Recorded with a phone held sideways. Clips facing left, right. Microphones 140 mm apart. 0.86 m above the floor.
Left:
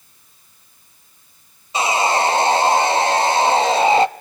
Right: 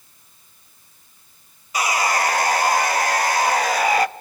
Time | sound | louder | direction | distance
1.7 | sawing | left 3 dB | 25° left (ahead or behind) | 0.6 m